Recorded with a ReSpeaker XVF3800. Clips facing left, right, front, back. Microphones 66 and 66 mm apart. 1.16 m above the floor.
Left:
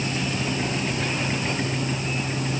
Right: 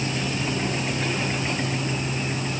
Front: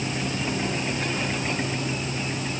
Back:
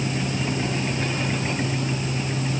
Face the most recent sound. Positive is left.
No sound to turn to.